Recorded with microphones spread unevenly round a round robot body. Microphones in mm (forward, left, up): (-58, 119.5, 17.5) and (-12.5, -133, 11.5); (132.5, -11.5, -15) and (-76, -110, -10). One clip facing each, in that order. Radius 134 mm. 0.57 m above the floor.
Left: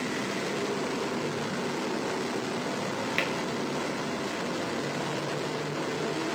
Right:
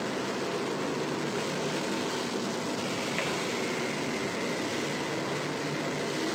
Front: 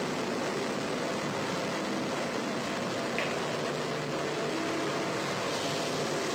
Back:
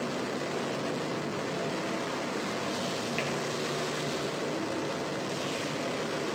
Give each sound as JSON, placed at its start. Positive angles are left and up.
{"t": 3.2, "sound": "tapping", "azimuth_deg": 125, "distance_m": 2.5}